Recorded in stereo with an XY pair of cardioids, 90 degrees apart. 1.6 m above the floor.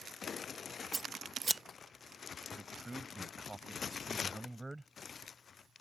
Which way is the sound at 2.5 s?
10° right.